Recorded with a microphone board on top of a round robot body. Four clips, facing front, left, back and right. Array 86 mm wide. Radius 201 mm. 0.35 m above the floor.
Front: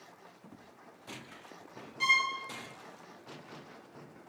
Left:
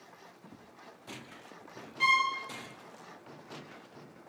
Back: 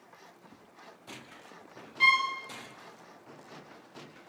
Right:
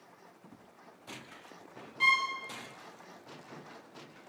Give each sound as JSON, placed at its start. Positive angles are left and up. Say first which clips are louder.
{"t": 2.0, "sound": "a violin", "louder": "left 2 dB, back 4 dB", "azimuth_deg": -170, "distance_m": 1.2}